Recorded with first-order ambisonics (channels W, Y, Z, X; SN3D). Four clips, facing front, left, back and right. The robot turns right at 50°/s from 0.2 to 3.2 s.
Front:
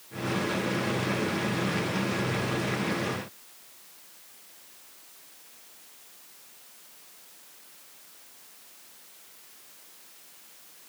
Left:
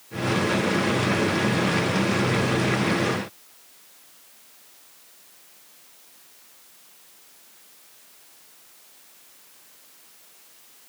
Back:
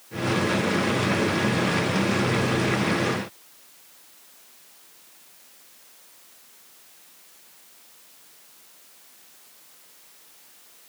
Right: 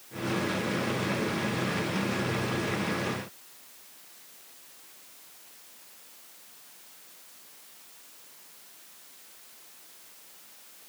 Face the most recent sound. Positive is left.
No sound to turn to.